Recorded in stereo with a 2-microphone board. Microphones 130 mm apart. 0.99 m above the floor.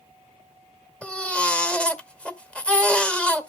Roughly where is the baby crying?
Centre.